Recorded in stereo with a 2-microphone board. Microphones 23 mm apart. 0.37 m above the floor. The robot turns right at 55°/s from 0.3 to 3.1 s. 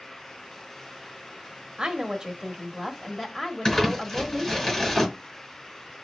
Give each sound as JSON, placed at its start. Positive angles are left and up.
{"t": 1.8, "sound": "a woman speaking", "azimuth_deg": -65, "distance_m": 1.3}
{"t": 3.6, "sound": "crumpling", "side_deg": 20, "distance_m": 3.5}